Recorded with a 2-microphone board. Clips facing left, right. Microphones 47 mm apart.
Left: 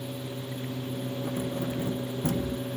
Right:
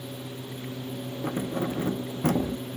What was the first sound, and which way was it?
Keys jangling, 55° right (ahead or behind).